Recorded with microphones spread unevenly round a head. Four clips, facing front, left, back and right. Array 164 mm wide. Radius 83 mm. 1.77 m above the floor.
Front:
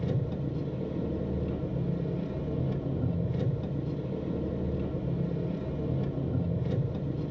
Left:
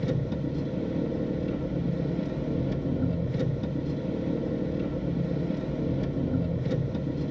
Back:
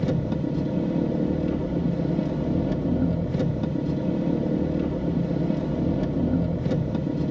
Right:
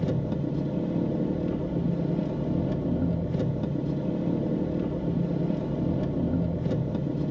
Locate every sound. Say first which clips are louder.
0.0 s an engine running: right 1 dB, back 7 dB; 165° right, 1.3 m